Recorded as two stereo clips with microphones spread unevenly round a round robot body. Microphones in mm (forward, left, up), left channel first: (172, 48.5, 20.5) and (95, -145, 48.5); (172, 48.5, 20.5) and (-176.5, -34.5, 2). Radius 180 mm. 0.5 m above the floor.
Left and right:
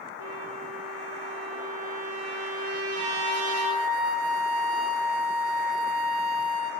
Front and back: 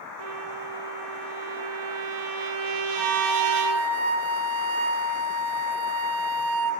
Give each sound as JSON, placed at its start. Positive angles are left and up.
{"t": 0.2, "sound": "a trumpet", "azimuth_deg": -150, "distance_m": 4.0}
{"t": 3.0, "sound": "a flute", "azimuth_deg": -130, "distance_m": 3.0}